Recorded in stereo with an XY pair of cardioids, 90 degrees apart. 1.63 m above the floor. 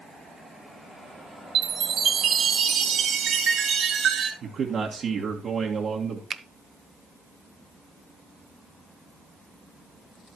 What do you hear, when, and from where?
1.6 s a chime: 65° right, 1.8 m
4.4 s a man speaking: 60° right, 1.7 m
6.3 s a finger snap: 45° right, 0.8 m